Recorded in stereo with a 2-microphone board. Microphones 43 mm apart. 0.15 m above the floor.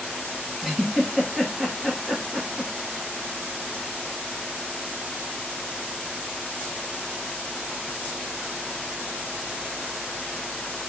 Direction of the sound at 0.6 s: 5° left (ahead or behind).